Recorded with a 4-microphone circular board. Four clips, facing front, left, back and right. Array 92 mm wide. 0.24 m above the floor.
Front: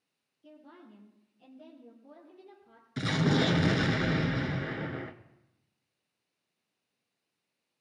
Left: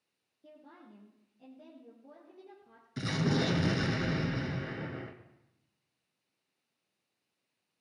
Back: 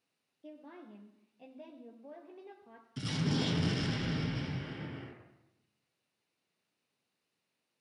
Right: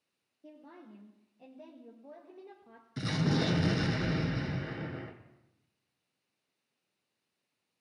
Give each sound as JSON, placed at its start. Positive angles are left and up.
{"t": 0.4, "sound": "a woman speaking", "azimuth_deg": -165, "distance_m": 4.5}
{"t": 3.0, "sound": "an explosion", "azimuth_deg": 0, "distance_m": 1.4}